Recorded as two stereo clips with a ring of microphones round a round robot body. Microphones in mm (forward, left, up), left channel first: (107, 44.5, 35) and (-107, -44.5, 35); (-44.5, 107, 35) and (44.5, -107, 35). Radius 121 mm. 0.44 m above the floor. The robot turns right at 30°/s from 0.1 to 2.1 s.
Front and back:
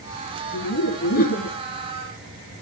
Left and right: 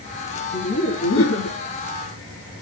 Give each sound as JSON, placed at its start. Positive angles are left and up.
{"t": 0.5, "sound": "laughter", "azimuth_deg": 60, "distance_m": 4.0}